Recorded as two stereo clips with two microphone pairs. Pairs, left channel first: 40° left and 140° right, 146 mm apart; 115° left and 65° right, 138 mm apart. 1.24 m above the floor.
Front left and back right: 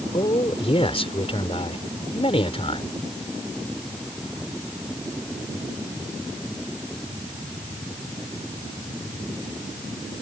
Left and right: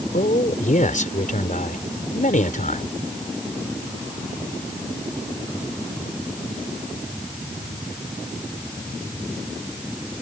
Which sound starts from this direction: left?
A man speaking, at 0.1 s.